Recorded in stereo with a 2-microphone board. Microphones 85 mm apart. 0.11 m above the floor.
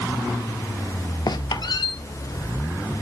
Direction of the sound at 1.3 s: 55° left (ahead or behind).